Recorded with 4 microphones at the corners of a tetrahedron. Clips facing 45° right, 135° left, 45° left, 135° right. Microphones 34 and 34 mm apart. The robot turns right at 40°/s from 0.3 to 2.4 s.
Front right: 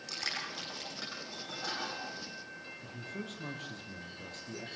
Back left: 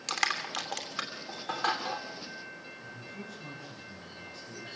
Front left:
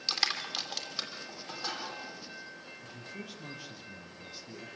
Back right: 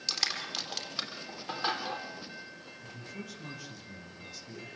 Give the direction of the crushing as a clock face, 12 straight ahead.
8 o'clock.